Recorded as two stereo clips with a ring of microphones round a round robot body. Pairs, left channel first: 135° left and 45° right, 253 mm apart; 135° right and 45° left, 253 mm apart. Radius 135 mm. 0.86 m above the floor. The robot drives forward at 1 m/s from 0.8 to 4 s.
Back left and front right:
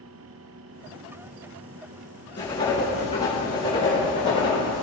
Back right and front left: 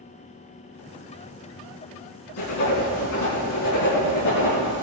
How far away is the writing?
About 3.5 m.